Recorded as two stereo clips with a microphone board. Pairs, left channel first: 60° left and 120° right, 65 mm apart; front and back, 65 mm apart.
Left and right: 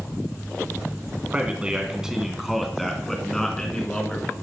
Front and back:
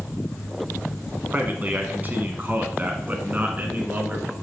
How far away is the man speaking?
About 1.6 m.